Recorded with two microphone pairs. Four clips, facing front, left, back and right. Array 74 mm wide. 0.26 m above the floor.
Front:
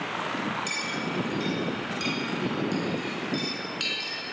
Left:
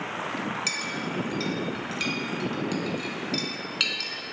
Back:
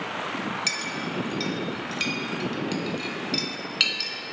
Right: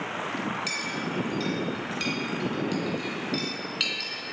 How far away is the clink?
About 2.0 m.